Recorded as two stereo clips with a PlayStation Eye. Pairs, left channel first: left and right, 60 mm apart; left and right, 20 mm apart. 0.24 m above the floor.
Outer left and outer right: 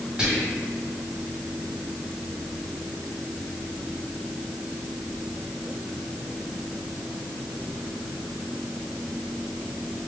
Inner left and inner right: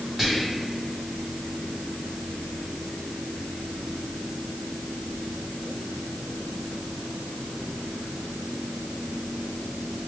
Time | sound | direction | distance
0.2 | whispering | 15° right (ahead or behind) | 1.5 m